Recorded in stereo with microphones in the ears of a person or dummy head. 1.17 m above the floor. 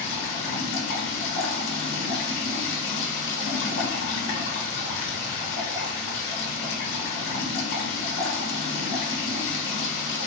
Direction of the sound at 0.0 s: 85° left.